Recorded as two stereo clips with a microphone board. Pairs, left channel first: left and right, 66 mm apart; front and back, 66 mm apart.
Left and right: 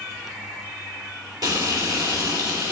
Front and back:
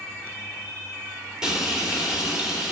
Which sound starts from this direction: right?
Frying, at 1.4 s.